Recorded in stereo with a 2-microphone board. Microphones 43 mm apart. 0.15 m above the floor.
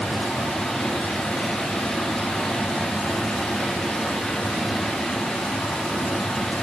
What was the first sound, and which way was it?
Running water, 45° left (ahead or behind).